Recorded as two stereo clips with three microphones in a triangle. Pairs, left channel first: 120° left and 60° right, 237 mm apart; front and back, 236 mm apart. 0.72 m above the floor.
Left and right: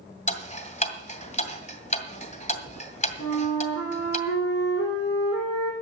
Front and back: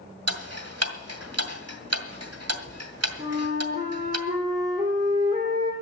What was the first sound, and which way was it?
Ticking, straight behind.